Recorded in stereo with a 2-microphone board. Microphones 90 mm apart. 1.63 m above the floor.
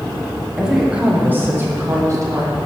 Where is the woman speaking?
5° right (ahead or behind), 1.5 m; by 2.6 s 45° right (ahead or behind), 1.7 m.